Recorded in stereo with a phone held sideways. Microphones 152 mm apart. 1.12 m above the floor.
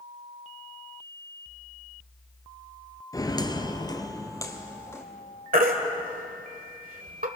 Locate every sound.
3.1 s footsteps: 25° left (ahead or behind), 1.2 m; by 5.0 s 20° left (ahead or behind), 3 m
5.5 s a baby crying: 70° right (ahead or behind), 1.9 m